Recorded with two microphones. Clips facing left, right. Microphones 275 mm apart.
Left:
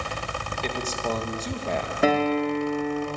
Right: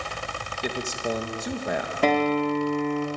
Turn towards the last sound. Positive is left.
turn(degrees=10)  # may be behind; listen again after turning